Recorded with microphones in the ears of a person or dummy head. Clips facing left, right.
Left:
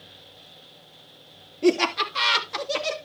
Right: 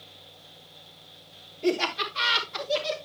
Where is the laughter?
70° left (ahead or behind), 2.5 m; by 3.0 s 75° left (ahead or behind), 2 m.